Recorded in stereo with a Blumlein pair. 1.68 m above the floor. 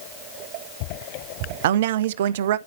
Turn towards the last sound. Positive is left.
turn(degrees=-55)